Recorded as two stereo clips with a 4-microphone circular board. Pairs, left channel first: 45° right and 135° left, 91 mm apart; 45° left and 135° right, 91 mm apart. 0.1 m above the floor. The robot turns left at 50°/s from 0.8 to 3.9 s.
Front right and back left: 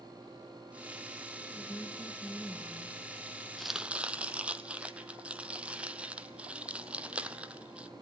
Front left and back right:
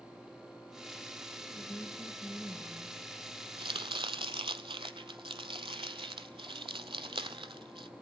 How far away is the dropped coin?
I don't hear a dropped coin.